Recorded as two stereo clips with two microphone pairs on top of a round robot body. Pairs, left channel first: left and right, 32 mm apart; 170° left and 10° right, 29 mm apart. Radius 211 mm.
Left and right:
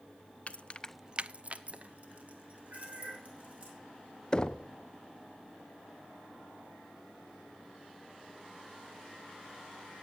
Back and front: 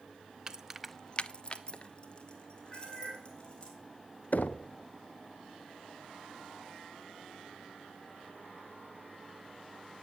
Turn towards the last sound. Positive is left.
turn(degrees=155)